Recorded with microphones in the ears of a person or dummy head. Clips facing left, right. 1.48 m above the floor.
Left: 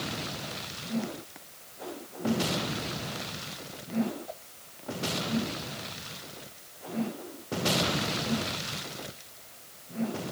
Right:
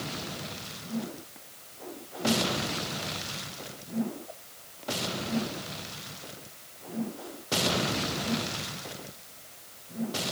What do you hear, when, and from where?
Only background noise.